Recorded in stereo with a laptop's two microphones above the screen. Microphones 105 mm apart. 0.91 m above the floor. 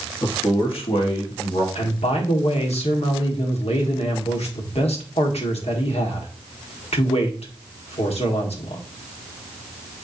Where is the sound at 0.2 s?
50° left (ahead or behind), 1.4 m; by 1.6 s 80° left, 2.5 m.